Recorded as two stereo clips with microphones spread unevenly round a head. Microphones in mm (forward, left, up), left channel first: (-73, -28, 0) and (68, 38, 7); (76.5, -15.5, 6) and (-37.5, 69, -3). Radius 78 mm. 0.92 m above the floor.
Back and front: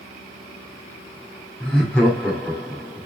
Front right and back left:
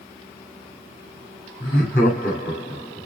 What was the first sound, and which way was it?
Laughter, 70° right.